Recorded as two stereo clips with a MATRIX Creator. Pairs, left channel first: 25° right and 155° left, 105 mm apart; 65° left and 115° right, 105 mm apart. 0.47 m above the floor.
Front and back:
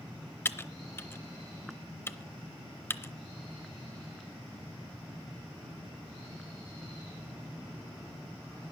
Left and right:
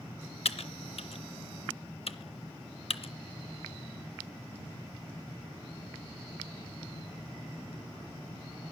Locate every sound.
0.5 s typing on a keyboard: 45° left, 0.7 m